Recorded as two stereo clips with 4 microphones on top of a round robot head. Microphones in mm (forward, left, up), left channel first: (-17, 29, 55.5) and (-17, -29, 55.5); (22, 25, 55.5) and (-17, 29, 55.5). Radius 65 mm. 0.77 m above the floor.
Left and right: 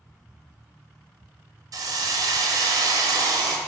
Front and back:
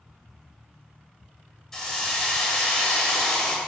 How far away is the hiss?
About 0.6 m.